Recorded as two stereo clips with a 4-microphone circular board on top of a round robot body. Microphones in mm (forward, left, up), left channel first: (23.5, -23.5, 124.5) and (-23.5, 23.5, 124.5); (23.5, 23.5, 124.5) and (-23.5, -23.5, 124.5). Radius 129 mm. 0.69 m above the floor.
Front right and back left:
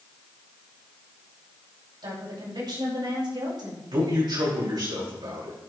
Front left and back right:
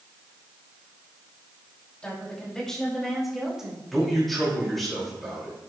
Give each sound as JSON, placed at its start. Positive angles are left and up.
{"t": 2.0, "sound": "a woman speaking", "azimuth_deg": 120, "distance_m": 5.0}
{"t": 3.9, "sound": "a man speaking", "azimuth_deg": 135, "distance_m": 5.0}